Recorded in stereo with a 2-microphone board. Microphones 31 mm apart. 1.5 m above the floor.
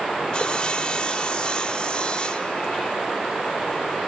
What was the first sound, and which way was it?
Sawing, 40° left (ahead or behind).